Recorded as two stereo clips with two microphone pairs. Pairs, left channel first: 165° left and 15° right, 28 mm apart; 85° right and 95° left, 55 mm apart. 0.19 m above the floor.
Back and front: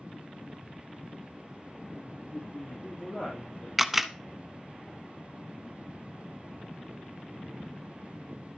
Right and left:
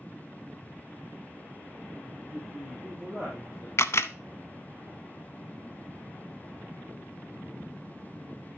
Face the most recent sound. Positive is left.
turn(degrees=-95)